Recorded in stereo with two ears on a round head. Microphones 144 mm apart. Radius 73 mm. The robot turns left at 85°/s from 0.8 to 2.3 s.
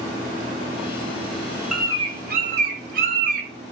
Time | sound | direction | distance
1.7 | a bird | 5° right | 0.6 m